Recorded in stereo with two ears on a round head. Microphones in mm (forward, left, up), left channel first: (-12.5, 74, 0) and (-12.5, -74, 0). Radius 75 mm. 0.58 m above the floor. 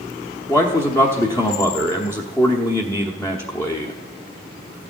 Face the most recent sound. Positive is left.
turn(degrees=15)  # may be behind; listen again after turning